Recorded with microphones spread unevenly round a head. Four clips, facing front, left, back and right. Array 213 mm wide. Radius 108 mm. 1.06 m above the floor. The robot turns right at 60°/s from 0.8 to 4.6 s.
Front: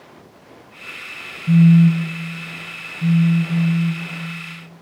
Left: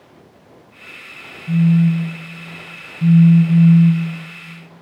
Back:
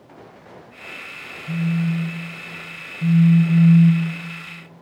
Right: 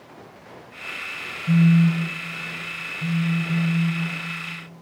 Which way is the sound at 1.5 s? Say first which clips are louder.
Left 2 dB, front 11 dB; 15° right.